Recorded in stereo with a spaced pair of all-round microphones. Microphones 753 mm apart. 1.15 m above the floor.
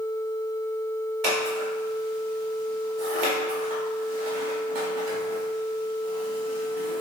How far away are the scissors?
About 2 m.